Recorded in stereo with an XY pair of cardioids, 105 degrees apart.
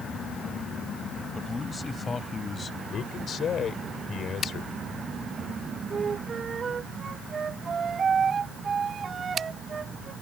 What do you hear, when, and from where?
1.4 s a man speaking: 25° left; by 2.8 s 35° left
2.9 s a man speaking: 55° left
5.9 s a flute: 45° right